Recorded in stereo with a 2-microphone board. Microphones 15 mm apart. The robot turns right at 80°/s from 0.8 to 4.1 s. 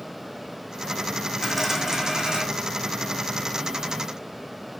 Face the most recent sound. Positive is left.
turn(degrees=25)